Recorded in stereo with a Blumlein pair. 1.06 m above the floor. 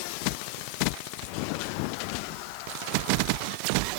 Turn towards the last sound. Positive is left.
No sound to turn to.